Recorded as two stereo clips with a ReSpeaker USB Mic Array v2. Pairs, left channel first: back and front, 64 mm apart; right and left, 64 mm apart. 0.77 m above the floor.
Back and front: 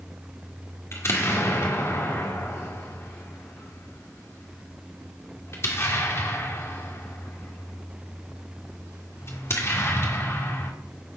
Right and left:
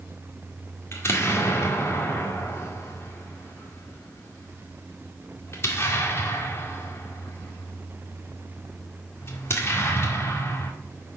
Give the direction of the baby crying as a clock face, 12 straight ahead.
No baby crying in this recording.